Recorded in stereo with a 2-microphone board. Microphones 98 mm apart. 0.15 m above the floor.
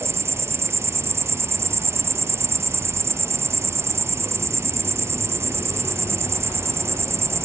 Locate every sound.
0.0 s an insect: 25° right (ahead or behind)